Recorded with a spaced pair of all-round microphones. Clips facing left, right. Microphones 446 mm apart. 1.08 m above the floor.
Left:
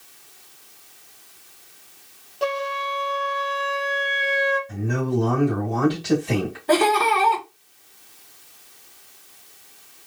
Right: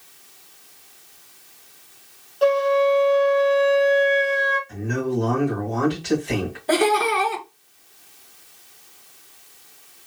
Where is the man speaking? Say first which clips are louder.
Even; 55° left (ahead or behind), 1.7 m.